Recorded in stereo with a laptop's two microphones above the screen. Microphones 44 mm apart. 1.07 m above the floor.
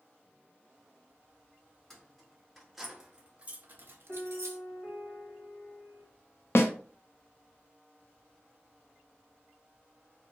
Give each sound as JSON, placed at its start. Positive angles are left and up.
{"t": 1.9, "sound": "keys jangling", "side_deg": 10, "distance_m": 1.4}
{"t": 4.1, "sound": "a piano", "side_deg": 5, "distance_m": 1.7}
{"t": 6.5, "sound": "a snare drum", "side_deg": 65, "distance_m": 0.6}